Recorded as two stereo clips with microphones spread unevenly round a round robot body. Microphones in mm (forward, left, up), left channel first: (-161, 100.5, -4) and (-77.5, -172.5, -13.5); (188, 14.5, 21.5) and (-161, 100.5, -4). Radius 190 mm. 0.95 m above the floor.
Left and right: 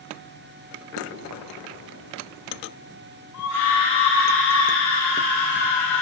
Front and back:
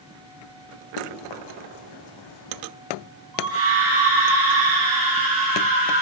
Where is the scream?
135° left, 8.5 m.